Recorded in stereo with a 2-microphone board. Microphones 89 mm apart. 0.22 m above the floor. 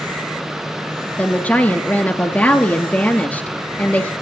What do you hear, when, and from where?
1.2 s a woman speaking: 15° left (ahead or behind), 3 m